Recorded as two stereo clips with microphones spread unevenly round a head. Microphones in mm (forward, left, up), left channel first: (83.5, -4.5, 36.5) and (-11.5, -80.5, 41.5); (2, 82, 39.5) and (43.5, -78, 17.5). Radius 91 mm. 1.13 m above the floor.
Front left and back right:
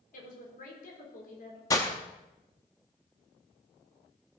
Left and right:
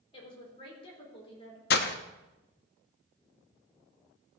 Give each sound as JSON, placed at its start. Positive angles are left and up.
{"t": 0.1, "sound": "a woman speaking", "azimuth_deg": 45, "distance_m": 4.5}
{"t": 1.7, "sound": "breaking glass", "azimuth_deg": 110, "distance_m": 0.7}